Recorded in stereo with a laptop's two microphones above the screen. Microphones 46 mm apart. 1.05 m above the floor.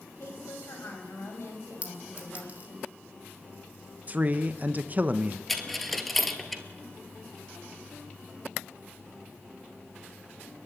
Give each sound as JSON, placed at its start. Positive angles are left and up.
{"t": 0.2, "sound": "a woman speaking", "side_deg": 60, "distance_m": 5.5}
{"t": 1.8, "sound": "a clink", "side_deg": -30, "distance_m": 2.0}
{"t": 4.1, "sound": "a man speaking", "side_deg": -35, "distance_m": 0.8}
{"t": 5.5, "sound": "a dropped coin", "side_deg": 0, "distance_m": 1.2}